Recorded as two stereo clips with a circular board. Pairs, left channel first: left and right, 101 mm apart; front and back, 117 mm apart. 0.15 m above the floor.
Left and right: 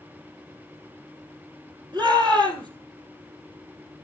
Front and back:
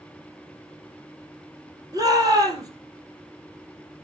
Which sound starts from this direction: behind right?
A shout, at 1.9 s.